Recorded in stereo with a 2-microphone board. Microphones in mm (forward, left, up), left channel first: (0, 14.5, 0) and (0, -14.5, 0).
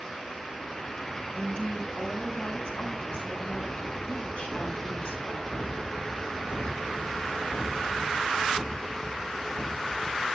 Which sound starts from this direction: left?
A woman speaking, at 1.3 s.